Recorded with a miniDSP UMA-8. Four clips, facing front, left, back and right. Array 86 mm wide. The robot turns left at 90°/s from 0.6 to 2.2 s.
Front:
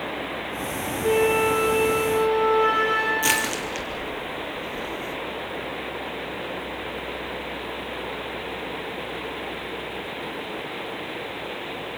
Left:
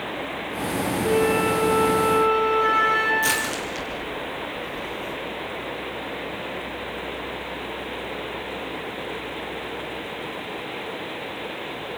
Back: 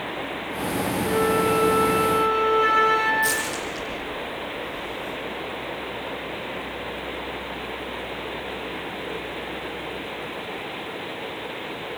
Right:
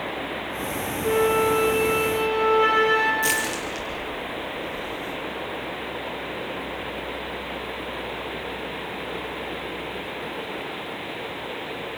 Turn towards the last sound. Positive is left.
turn(degrees=0)